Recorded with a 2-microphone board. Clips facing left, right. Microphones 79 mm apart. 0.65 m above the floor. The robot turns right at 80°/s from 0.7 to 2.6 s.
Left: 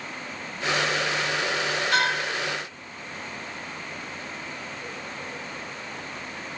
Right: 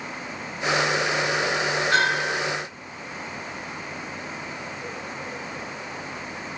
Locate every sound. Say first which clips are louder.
1.9 s a bell: right 2 dB; 140° right, 1.9 m; by 2.4 s 105° right, 1.9 m